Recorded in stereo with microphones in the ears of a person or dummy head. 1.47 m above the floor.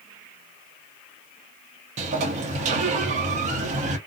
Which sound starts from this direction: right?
A sliding door, at 2.0 s.